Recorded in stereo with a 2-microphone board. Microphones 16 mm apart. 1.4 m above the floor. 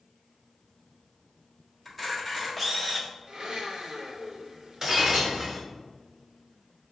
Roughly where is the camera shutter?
Centre.